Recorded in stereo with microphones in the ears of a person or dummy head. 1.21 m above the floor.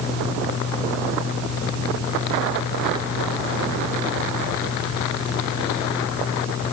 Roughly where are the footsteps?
No footsteps in this recording.